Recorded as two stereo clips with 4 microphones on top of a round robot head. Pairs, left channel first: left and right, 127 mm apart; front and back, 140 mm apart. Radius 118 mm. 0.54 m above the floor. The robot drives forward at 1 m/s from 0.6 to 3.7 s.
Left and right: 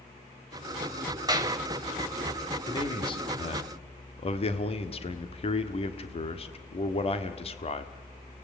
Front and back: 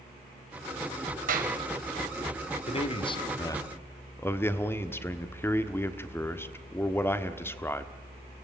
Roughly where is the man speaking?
Ahead left.